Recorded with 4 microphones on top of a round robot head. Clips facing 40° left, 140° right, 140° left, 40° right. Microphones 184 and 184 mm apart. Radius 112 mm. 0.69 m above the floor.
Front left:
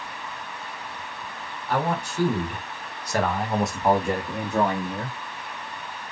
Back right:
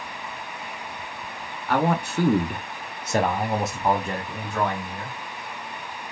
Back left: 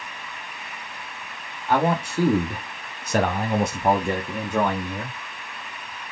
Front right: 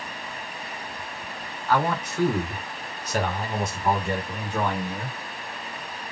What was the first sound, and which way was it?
A man speaking, 155° right.